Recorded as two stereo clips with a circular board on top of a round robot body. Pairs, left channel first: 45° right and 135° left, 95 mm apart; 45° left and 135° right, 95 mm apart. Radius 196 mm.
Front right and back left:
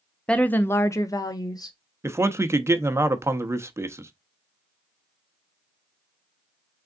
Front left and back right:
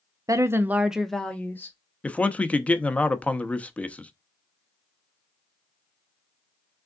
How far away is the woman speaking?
About 0.9 m.